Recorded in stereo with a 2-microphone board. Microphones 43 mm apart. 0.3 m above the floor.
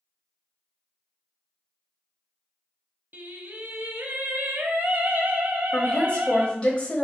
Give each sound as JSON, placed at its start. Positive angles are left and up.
{"t": 3.1, "sound": "singing", "side_deg": -55, "distance_m": 0.7}
{"t": 5.7, "sound": "a woman speaking", "side_deg": 30, "distance_m": 1.1}